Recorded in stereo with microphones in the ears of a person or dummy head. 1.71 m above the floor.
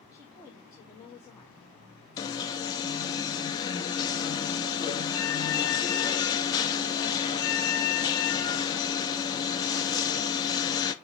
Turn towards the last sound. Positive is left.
turn(degrees=20)  # may be behind; listen again after turning